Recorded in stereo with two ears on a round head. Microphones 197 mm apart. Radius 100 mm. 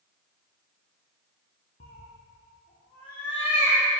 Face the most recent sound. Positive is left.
turn(degrees=20)  # may be behind; listen again after turning